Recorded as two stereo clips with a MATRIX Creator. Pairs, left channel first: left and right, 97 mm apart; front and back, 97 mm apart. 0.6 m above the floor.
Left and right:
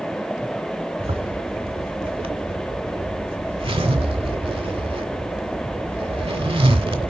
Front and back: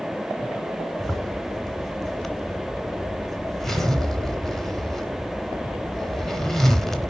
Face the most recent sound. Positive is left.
turn(degrees=-85)